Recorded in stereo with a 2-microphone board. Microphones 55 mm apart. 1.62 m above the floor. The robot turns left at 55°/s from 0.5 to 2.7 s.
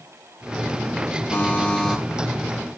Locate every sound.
1.3 s a buzzer: 45° left, 4 m; by 2.0 s 5° left, 4 m